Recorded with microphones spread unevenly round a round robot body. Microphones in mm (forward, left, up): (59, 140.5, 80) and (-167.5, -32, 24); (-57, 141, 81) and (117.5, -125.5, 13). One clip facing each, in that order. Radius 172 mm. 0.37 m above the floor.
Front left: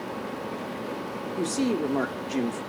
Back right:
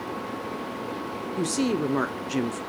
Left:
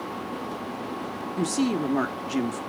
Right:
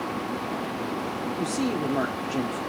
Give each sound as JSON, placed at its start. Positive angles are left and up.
{"t": 1.4, "sound": "a woman speaking", "azimuth_deg": 180, "distance_m": 1.0}